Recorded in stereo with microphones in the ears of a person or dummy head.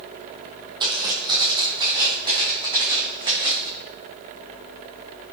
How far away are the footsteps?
About 2.5 m.